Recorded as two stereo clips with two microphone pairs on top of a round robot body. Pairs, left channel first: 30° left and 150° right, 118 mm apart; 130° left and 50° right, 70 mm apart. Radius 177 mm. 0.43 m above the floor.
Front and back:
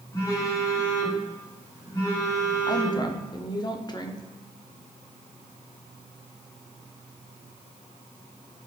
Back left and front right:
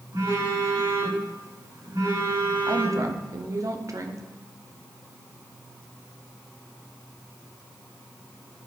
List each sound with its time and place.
0.1 s a phone buzzing: 25° right, 4 m
2.7 s a woman speaking: 15° right, 1.2 m